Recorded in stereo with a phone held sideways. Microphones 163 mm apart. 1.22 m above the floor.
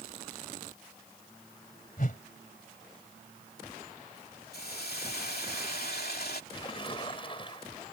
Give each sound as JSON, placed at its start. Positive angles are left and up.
{"t": 2.0, "sound": "a whoosh", "side_deg": 60}
{"t": 4.5, "sound": "a hiss", "side_deg": 75}
{"t": 6.5, "sound": "a splash", "side_deg": 30}